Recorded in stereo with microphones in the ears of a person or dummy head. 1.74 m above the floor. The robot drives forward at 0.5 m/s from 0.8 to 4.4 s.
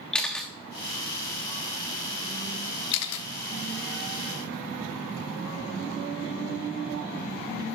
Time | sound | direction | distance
0.1 | a camera shutter | 5° left (ahead or behind) | 1.3 m
2.9 | a camera shutter | 70° left (ahead or behind) | 0.8 m